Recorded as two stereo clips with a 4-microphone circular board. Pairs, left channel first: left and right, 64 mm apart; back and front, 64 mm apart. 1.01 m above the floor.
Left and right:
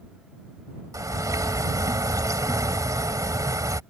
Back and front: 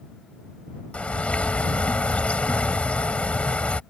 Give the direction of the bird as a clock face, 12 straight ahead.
4 o'clock.